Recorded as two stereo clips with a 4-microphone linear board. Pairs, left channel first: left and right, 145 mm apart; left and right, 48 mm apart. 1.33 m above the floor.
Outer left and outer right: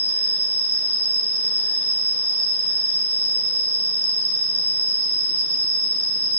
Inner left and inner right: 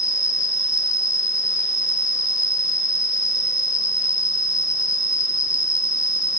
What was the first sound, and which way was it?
An insect, 15° right (ahead or behind).